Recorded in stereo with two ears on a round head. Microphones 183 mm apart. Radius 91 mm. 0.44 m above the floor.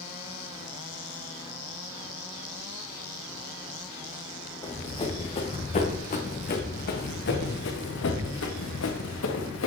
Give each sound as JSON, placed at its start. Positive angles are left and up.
{"t": 4.6, "sound": "running footsteps", "side_deg": 20, "distance_m": 3.0}